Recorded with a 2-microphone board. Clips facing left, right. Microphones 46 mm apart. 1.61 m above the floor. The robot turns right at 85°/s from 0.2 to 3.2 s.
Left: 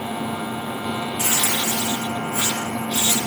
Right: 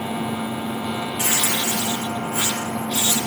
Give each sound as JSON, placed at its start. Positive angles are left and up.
{"t": 1.2, "sound": "tearing paper", "azimuth_deg": -140, "distance_m": 5.0}